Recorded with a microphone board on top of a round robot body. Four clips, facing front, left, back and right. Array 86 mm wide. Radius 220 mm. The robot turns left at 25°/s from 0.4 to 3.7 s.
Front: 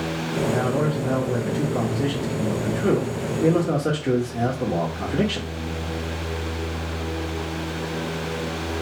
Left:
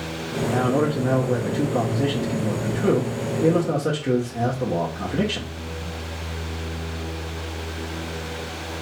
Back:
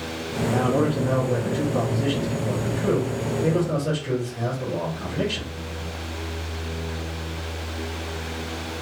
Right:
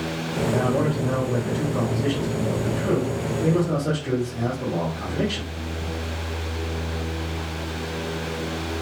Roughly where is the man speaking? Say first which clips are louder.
Left 2 dB, back 3 dB; behind left.